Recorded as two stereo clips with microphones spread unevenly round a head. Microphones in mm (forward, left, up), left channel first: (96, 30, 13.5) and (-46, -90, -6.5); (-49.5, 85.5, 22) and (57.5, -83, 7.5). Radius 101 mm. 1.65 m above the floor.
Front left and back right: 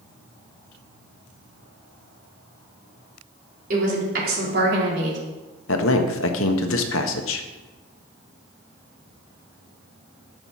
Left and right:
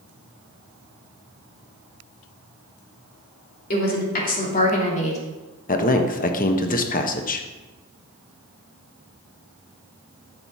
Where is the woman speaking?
165° left, 3.5 m; by 5.2 s straight behind, 3 m.